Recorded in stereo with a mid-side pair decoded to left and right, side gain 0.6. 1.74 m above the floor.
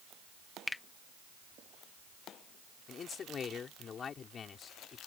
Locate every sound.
0.7 s a finger snap: 15° left
2.9 s a man speaking: 40° left